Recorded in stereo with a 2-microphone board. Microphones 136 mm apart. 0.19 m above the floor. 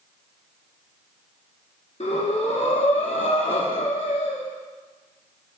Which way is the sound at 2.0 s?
55° left (ahead or behind).